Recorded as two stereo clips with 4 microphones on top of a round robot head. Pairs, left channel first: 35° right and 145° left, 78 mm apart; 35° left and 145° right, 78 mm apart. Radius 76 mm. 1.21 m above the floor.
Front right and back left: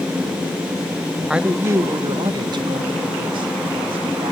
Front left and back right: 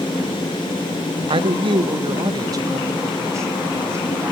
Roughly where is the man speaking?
Behind right.